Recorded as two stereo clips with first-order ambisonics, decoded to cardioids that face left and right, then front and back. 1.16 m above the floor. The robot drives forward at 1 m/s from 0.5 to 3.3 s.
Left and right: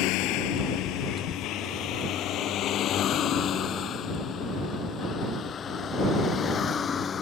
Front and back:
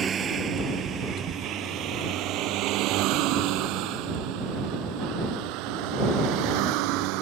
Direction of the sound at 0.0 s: 115° left.